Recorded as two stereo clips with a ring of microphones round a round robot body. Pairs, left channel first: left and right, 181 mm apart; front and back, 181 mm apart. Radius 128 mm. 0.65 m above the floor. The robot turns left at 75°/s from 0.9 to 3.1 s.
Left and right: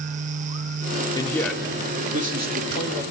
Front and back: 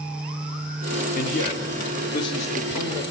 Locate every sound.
1.1 s a man speaking: 25° left, 2.0 m; by 3.0 s 115° right, 2.0 m